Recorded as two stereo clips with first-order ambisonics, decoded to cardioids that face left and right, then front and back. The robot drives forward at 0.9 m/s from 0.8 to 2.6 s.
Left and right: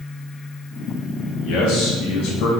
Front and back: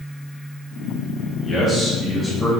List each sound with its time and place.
1.4 s a man speaking: 65° left, 3 m; by 2.5 s 90° left, 2.5 m